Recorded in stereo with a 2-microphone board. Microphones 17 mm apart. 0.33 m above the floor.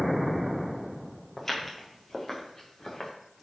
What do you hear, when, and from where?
1.4 s footsteps: 20° left (ahead or behind), 4.5 m; by 3.1 s 40° left (ahead or behind), 3.5 m